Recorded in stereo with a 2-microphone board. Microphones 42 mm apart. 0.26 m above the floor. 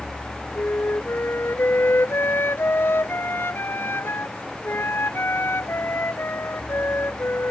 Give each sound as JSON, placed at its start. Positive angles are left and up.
{"t": 0.6, "sound": "a flute", "side_deg": 70}